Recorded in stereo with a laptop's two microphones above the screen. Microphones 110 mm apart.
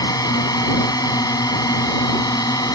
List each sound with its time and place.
0.0 s a drone: 35° left (ahead or behind)